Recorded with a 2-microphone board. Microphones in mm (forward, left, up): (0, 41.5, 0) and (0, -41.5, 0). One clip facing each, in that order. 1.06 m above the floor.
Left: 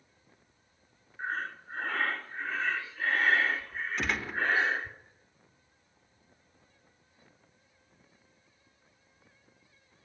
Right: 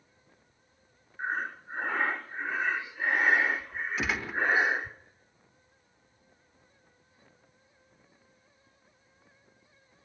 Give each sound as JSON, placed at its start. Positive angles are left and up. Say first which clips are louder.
{"t": 1.2, "sound": "breathing", "louder": "right 2 dB", "side_deg": -15, "distance_m": 0.7}
{"t": 4.0, "sound": "a gunshot", "louder": "right 1 dB", "side_deg": -5, "distance_m": 0.8}